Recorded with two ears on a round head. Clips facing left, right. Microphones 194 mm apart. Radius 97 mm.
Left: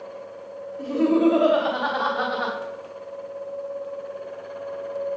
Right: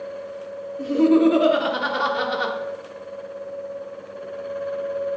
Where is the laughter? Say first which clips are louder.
Right 3 dB; 25° right (ahead or behind), 1.5 m; by 2.5 s 45° right (ahead or behind), 1.6 m.